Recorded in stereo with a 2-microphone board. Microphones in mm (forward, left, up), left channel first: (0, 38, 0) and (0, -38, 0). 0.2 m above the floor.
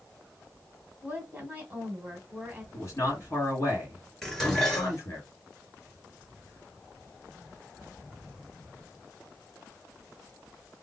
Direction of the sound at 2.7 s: 40° left (ahead or behind).